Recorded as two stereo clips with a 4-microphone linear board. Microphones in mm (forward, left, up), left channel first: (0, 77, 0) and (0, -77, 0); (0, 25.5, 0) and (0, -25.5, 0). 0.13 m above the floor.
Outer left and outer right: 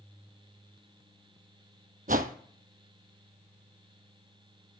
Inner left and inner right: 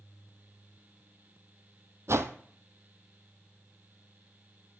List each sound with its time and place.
2.1 s a whoosh: 65° right (ahead or behind), 0.7 m